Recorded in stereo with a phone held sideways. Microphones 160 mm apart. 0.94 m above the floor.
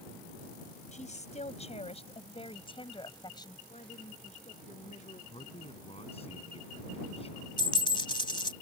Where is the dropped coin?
30° left (ahead or behind).